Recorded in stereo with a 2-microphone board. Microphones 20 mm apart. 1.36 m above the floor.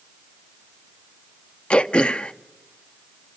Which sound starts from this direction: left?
Throat clearing, at 1.7 s.